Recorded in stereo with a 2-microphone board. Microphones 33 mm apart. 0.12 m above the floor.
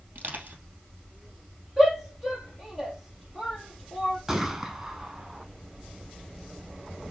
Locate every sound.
0.1 s crushing: 65° right (ahead or behind), 3 m
1.8 s a shout: centre (ahead or behind), 3 m
4.3 s a gunshot: 15° right (ahead or behind), 1.5 m